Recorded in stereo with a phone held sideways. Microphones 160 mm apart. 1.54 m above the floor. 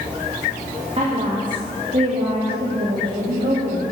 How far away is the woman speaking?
About 2.5 m.